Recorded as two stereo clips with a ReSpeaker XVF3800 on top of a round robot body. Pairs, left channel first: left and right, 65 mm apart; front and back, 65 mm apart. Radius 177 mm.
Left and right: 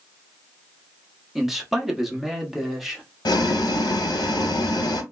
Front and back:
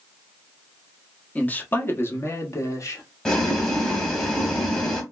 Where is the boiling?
80° left, 0.8 m.